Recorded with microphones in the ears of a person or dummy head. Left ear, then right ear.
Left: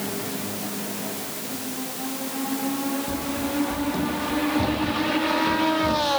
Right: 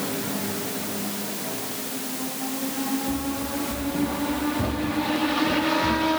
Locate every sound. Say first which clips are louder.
3.1 s running footsteps: left 1 dB; 70° left (ahead or behind), 5 m; by 6.1 s 50° left (ahead or behind), 3.5 m